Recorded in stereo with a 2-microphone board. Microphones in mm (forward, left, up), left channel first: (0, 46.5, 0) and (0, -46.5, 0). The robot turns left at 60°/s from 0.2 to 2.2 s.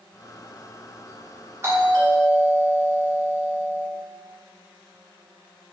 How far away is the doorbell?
About 1.1 m.